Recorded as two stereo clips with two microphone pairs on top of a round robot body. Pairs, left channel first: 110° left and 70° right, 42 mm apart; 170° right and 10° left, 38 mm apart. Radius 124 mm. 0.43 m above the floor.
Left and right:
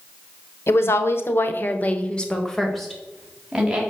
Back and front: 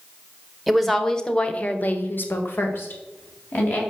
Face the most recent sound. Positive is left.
turn(degrees=-145)